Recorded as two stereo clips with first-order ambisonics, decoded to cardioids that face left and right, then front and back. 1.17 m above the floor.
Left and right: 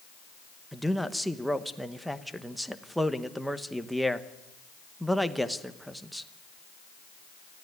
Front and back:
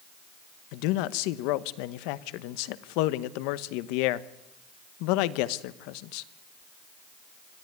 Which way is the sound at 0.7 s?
Straight ahead.